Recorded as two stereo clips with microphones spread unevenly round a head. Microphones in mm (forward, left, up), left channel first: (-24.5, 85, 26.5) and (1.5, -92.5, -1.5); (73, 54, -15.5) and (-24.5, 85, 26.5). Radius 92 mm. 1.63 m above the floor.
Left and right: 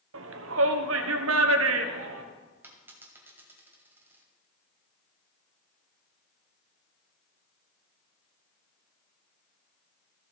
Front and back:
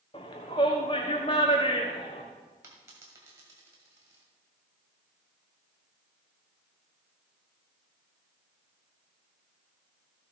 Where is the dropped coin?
165° right, 2 m.